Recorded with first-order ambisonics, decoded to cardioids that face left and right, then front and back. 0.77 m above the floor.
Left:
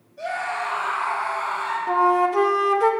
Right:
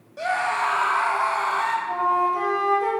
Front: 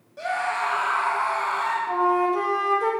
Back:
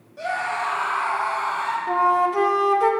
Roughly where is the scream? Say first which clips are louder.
Right 4 dB, even; right.